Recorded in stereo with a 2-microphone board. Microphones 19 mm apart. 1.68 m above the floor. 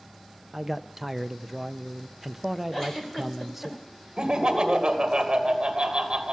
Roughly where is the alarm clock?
No alarm clock in this recording.